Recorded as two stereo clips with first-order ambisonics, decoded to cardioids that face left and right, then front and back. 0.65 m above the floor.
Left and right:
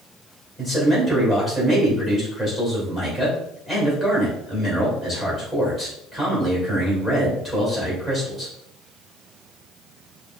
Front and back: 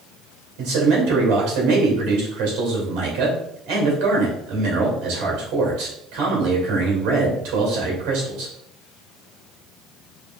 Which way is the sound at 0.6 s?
175° left.